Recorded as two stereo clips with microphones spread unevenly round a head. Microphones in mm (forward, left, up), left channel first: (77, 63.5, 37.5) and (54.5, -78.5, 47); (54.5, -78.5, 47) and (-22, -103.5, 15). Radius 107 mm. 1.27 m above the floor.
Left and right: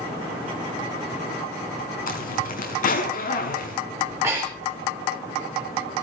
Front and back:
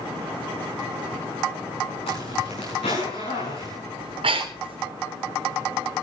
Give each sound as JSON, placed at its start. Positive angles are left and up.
{"t": 2.1, "sound": "a zipper", "azimuth_deg": 60, "distance_m": 6.0}
{"t": 4.0, "sound": "breathing", "azimuth_deg": -175, "distance_m": 3.5}